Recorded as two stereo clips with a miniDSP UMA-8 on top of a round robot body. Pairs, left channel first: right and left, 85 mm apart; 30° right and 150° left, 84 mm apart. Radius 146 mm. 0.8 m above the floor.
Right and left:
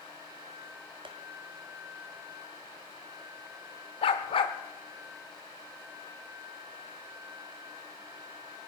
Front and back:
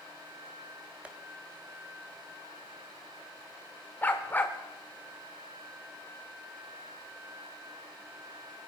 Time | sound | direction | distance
1.1 | tapping | 75° left | 1.6 m
4.0 | a dog barking | 100° right | 0.7 m